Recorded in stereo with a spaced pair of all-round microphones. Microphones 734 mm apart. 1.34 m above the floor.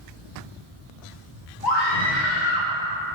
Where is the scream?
85° left, 1.9 m; by 2.7 s 70° left (ahead or behind), 2 m.